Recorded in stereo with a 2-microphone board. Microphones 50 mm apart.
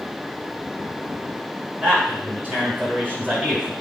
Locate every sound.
1.8 s a man speaking: 30° right (ahead or behind), 3.5 m